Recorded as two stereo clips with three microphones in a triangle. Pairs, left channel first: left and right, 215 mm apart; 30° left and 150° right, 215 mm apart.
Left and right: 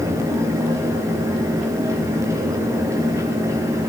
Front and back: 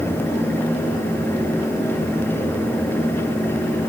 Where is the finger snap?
No finger snap in this recording.